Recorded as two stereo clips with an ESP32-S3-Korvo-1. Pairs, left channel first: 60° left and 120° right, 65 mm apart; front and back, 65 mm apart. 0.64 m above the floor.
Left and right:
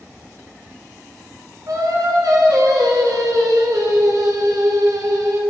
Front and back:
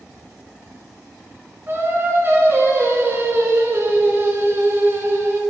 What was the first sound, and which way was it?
Singing, 130° right.